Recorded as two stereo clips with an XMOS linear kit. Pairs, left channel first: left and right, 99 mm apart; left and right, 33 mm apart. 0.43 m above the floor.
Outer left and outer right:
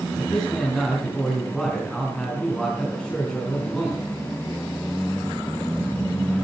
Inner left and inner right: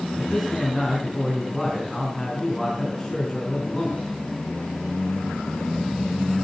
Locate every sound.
0.2 s a man speaking: 5° left (ahead or behind), 4.5 m